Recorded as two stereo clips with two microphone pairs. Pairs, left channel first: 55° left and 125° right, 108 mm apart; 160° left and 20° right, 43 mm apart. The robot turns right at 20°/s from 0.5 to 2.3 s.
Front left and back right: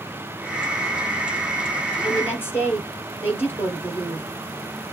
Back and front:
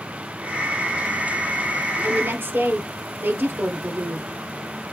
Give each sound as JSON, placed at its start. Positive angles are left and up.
{"t": 2.0, "sound": "a woman speaking", "azimuth_deg": -20, "distance_m": 3.0}